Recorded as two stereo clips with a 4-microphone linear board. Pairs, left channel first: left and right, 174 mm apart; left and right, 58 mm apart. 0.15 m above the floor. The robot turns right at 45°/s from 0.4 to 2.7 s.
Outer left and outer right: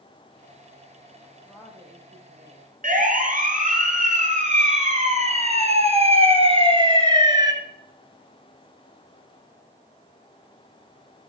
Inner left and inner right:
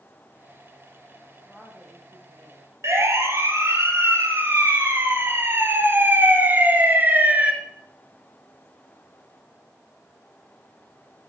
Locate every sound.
1.2 s a woman speaking: 170° left, 8.5 m; by 2.7 s 125° right, 8.5 m
2.8 s a siren: 45° right (ahead or behind), 4.5 m; by 7.5 s 20° right (ahead or behind), 2.5 m